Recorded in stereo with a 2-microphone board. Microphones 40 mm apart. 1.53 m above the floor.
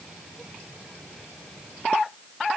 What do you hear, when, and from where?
Only background noise.